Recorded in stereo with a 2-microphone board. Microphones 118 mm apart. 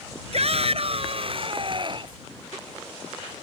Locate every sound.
0.3 s a shout: 60° right (ahead or behind); by 2.2 s 40° right (ahead or behind)